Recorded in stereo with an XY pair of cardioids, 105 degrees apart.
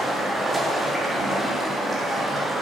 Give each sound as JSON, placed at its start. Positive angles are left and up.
{"t": 0.0, "sound": "running water", "azimuth_deg": -20, "distance_m": 3.5}